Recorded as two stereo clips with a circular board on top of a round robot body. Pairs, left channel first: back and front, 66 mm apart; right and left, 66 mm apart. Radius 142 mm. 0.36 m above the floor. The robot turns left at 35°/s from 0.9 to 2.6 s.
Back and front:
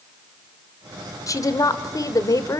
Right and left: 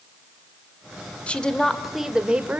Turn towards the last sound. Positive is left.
turn(degrees=155)